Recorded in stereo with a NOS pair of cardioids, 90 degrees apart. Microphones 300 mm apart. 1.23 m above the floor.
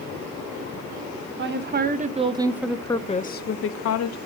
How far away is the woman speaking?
About 1.3 m.